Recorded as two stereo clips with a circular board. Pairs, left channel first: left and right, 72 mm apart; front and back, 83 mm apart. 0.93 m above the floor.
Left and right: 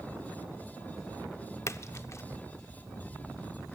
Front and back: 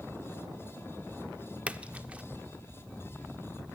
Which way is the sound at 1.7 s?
115° left.